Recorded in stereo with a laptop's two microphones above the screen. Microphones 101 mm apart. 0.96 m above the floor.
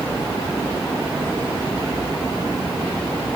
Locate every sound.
Only background noise.